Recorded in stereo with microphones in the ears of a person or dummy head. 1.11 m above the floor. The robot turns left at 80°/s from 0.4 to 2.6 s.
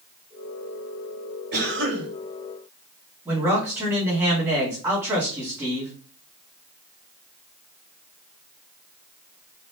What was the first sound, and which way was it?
A cough, 55° right.